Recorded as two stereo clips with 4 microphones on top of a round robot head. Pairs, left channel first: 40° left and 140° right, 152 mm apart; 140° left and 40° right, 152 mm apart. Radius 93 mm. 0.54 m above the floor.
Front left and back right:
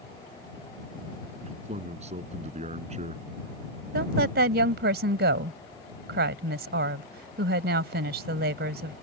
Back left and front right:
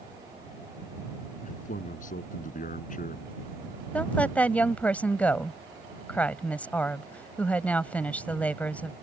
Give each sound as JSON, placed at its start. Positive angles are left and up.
{"t": 1.4, "sound": "a man speaking", "azimuth_deg": 175}
{"t": 3.9, "sound": "a woman speaking", "azimuth_deg": -140}